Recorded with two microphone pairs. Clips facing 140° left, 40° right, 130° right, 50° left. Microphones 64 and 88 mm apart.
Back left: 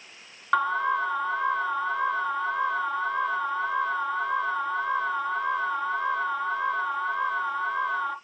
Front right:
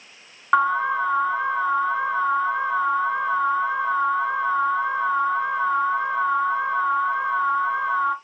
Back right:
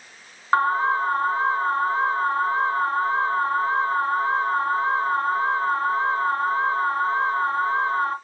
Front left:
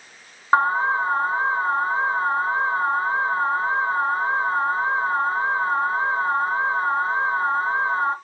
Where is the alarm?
15° left, 0.9 m.